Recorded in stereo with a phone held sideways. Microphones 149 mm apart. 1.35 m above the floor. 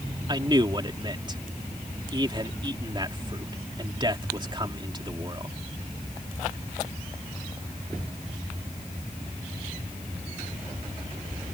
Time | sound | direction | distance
0.3 | a man speaking | 30° right (ahead or behind) | ?